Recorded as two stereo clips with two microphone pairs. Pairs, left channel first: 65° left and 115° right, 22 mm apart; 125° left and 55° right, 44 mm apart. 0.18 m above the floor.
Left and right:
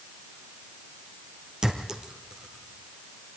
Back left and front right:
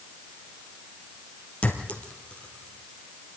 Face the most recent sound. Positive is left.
turn(degrees=-175)